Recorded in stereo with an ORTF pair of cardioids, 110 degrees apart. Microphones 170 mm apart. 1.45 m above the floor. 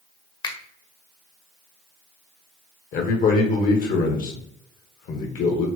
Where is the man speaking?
55° left, 1.1 m.